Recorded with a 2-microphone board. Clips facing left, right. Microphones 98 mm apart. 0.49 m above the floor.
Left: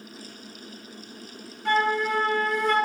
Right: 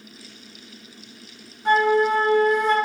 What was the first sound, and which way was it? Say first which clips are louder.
A flute: right 6 dB; 20° right (ahead or behind).